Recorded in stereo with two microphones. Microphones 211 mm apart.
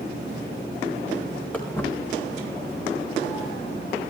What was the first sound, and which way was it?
Footsteps, 5° left (ahead or behind).